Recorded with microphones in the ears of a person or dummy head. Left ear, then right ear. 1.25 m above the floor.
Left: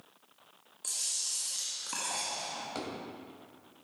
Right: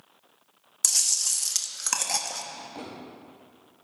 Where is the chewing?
70° right (ahead or behind), 1.0 m.